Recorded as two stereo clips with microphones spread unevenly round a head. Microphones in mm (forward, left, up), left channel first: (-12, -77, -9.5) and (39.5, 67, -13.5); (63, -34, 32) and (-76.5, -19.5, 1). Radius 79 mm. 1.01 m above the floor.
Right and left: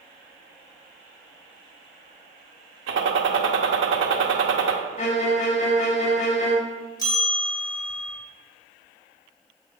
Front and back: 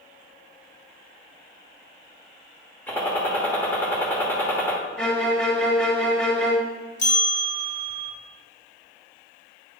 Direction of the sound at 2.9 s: 75° left.